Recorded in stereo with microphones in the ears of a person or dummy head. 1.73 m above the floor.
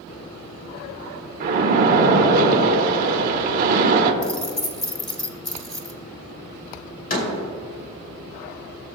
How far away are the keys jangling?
About 1.2 m.